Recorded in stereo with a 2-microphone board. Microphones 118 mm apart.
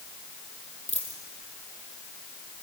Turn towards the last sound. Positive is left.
turn(degrees=70)  # may be behind; listen again after turning